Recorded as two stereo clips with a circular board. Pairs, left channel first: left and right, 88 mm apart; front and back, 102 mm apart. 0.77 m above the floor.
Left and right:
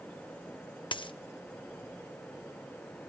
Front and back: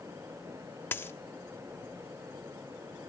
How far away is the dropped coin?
About 0.5 m.